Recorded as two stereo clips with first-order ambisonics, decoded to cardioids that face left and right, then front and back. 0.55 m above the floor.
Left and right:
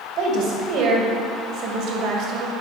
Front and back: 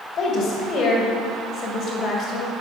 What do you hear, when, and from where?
0.2 s a woman speaking: 55° right, 2.5 m